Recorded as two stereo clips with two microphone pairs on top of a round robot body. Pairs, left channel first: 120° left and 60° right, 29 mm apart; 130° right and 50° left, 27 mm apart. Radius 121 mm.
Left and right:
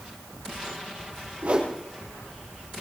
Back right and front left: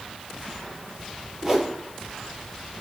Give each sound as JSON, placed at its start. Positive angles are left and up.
{"t": 1.4, "sound": "a whoosh", "azimuth_deg": -20, "distance_m": 3.5}